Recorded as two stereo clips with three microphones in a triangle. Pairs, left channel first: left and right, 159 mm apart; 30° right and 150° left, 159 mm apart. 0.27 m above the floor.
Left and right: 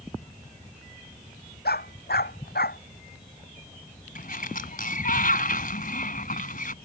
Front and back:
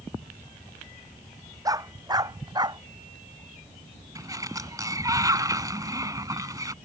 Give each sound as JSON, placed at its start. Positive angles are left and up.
{"t": 1.6, "sound": "a dog barking", "azimuth_deg": 80}
{"t": 4.2, "sound": "a sliding door", "azimuth_deg": 85}